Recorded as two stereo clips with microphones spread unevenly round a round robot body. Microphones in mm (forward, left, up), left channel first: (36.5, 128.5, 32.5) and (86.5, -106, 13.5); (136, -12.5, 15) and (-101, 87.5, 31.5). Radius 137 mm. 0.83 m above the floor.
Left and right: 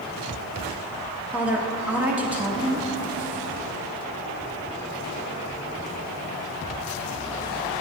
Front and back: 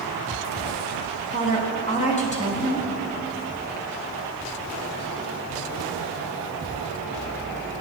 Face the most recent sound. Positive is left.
turn(degrees=-5)